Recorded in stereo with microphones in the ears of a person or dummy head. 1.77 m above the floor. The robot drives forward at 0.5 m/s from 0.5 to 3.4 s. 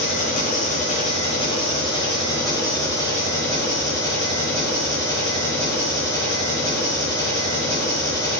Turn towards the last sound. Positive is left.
turn(degrees=15)  # may be behind; listen again after turning